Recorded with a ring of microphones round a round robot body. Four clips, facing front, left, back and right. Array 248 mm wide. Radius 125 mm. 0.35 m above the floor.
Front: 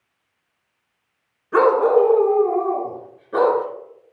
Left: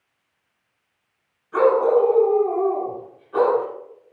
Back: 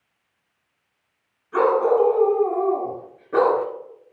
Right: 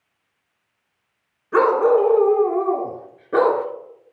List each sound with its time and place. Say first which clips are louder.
1.5 s a dog barking: right 1 dB, front 3 dB; 45° right, 1.5 m; by 3.7 s 105° right, 2 m